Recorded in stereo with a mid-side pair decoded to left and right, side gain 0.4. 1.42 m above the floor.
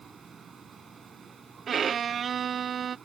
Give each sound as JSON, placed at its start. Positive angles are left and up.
{"t": 0.0, "sound": "a machine running", "azimuth_deg": -45}
{"t": 1.7, "sound": "a violin", "azimuth_deg": -50}